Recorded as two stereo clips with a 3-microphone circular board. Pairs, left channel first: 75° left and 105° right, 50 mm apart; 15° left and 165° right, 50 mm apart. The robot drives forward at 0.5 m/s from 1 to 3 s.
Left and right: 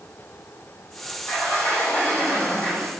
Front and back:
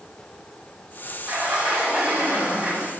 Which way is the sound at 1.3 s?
130° left.